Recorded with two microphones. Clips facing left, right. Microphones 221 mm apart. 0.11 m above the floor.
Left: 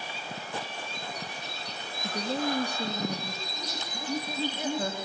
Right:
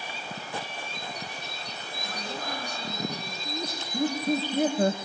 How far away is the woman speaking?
About 4 m.